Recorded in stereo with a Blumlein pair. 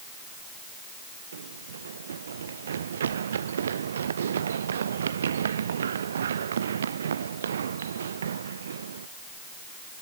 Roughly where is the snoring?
No snoring in this recording.